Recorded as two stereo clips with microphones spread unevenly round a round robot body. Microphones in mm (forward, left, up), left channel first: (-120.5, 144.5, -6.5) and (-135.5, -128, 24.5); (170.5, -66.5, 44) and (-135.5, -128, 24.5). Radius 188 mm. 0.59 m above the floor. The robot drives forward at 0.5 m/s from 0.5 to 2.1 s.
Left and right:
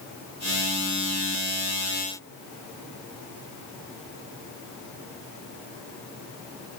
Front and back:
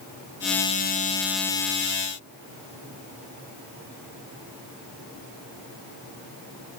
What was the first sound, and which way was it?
Only background noise.